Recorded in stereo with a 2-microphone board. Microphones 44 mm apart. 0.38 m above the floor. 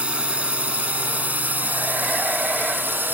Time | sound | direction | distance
0.0 | a drone | 25° right (ahead or behind) | ?